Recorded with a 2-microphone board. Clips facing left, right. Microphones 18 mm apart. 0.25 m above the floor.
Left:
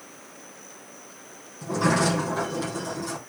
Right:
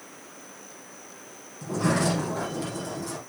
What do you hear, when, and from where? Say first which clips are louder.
1.6 s a sliding door: left 2 dB; 15° left (ahead or behind), 5.5 m